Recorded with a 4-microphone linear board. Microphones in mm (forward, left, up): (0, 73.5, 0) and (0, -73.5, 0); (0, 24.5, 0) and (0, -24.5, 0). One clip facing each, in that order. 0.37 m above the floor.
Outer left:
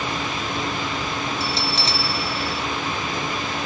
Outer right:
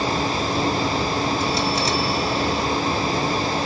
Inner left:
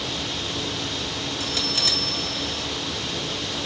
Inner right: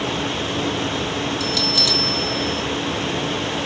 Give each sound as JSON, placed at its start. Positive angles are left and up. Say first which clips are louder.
{"t": 1.4, "sound": "a bell", "louder": "outer right 4 dB, inner right 5 dB", "side_deg": 30, "distance_m": 1.9}